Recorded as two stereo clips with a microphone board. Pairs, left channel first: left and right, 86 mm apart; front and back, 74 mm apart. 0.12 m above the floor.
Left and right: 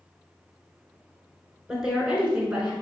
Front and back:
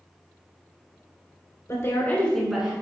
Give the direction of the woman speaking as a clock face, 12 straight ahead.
12 o'clock.